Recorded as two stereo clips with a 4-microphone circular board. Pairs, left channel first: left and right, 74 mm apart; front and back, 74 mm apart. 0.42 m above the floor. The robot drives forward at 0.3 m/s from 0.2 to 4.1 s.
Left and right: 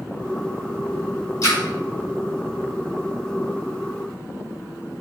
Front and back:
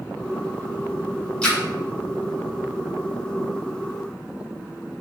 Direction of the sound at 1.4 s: 70° left.